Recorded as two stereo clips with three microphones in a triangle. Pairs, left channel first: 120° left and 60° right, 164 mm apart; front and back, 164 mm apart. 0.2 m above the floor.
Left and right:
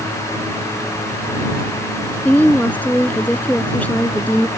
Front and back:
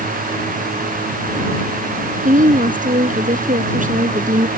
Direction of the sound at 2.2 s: 160° right.